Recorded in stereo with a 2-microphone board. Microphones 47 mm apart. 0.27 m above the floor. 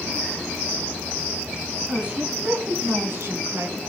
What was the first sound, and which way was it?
A woman speaking, 25° right (ahead or behind).